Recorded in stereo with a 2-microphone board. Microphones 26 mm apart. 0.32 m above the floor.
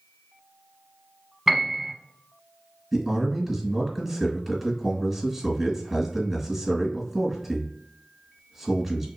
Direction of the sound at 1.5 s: 10° right (ahead or behind).